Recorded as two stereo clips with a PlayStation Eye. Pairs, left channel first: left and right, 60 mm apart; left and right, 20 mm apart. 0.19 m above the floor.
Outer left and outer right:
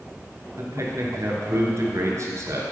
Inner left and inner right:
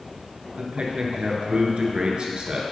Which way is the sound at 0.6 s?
55° right (ahead or behind).